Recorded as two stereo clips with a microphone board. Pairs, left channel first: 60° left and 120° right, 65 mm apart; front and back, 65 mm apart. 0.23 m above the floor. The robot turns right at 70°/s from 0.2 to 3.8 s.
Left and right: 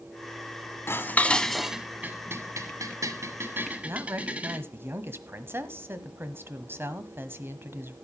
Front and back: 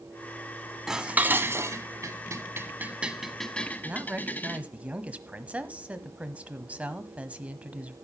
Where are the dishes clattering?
100° left, 1.1 m; by 4.6 s 55° right, 1.1 m.